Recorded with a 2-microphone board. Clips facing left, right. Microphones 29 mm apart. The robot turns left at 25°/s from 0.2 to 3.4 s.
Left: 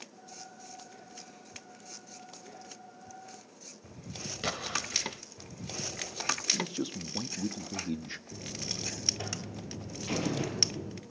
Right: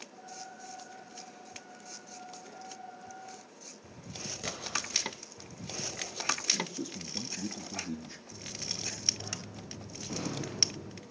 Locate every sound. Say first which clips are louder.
4.4 s an explosion: left 3 dB; 40° left (ahead or behind), 1.6 m
6.5 s a man speaking: left 2 dB; 40° left (ahead or behind), 1.4 m
8.3 s a buzzer: even; 85° left, 4.5 m